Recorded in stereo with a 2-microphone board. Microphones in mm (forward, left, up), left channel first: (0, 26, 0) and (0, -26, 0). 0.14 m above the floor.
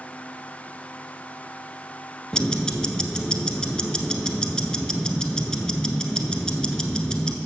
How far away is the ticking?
About 0.7 m.